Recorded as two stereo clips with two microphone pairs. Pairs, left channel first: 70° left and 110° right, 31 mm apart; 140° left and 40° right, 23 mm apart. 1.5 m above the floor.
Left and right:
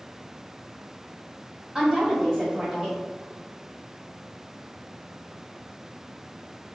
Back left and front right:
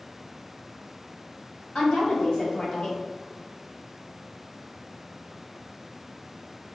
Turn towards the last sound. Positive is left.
turn(degrees=180)